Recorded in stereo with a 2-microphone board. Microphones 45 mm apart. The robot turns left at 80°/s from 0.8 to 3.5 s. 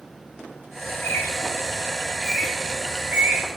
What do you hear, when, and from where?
0.9 s a bird: 50° left (ahead or behind), 1.6 m; by 3.5 s 70° right (ahead or behind), 1.6 m